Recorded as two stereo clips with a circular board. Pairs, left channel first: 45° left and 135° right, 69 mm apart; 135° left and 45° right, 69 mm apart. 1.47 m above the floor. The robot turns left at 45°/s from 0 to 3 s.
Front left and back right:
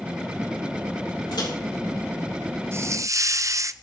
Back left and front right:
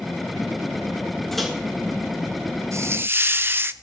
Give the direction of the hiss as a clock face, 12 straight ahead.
3 o'clock.